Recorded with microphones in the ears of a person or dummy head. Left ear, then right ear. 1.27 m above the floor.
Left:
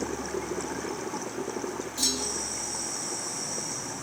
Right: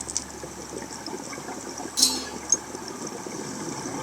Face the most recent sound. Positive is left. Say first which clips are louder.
# right 5 dB
turn(degrees=-50)  # may be behind; listen again after turning